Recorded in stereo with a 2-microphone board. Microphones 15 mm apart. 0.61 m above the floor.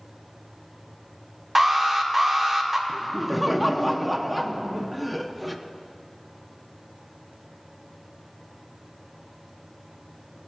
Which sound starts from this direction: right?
An alarm, at 1.6 s.